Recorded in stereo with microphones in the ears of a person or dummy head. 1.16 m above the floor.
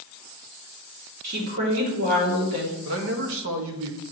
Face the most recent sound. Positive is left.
turn(degrees=-65)  # may be behind; listen again after turning